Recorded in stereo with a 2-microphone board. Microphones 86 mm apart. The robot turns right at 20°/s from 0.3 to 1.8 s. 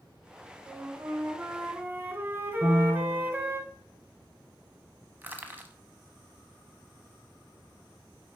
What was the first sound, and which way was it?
A flute, 40° right (ahead or behind).